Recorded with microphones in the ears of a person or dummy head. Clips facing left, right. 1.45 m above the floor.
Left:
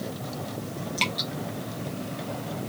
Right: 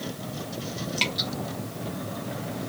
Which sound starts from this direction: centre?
Dripping, at 1.0 s.